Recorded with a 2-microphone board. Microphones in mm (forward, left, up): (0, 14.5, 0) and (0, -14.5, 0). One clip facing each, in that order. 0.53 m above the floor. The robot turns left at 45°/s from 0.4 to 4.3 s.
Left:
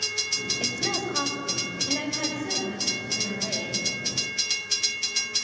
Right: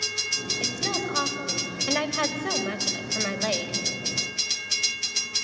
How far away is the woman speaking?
About 2.5 m.